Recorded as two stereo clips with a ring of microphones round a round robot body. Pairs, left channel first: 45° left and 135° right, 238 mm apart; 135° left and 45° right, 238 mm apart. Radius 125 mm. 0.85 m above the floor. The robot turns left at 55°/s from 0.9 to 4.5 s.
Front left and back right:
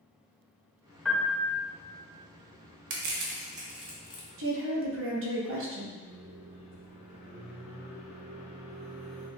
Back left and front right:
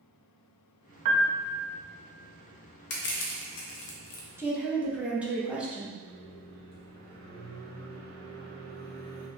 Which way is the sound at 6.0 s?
75° right.